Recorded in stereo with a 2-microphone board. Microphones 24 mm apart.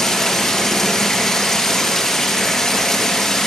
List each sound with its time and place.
0.0 s running water: 20° left (ahead or behind), 5.5 m